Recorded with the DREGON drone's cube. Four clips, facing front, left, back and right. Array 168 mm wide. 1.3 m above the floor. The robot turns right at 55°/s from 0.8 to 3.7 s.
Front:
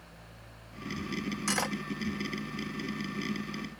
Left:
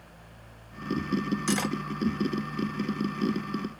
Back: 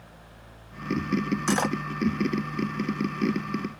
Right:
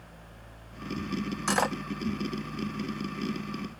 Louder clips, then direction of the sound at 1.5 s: Right 4 dB, back 7 dB; 130° right.